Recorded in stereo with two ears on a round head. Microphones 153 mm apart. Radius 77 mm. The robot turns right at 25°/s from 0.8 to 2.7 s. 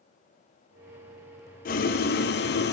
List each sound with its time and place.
1.6 s boiling: 55° left (ahead or behind), 0.7 m; by 2.7 s 65° left (ahead or behind), 0.7 m